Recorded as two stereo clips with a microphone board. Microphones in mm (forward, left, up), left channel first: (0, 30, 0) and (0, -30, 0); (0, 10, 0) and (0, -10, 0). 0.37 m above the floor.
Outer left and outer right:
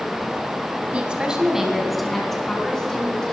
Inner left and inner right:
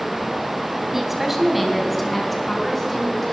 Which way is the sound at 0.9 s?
20° right (ahead or behind).